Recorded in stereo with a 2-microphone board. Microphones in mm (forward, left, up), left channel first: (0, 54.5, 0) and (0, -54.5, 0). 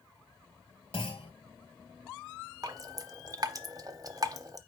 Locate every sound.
0.9 s a clunk: 60° left (ahead or behind), 1.7 m
2.6 s dripping: 35° right (ahead or behind), 0.6 m